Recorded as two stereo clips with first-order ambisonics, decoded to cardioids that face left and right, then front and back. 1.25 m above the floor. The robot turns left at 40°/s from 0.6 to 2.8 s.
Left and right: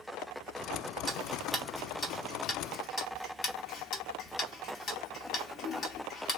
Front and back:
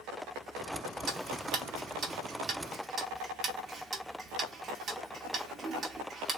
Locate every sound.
1.1 s ticking: 160° right, 0.9 m; by 6.4 s 130° left, 0.9 m